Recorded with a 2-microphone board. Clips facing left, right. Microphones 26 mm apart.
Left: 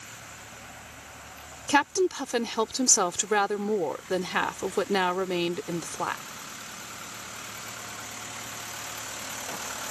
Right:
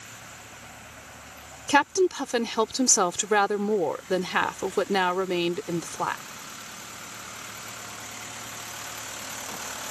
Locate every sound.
1.7 s a woman speaking: 10° right (ahead or behind)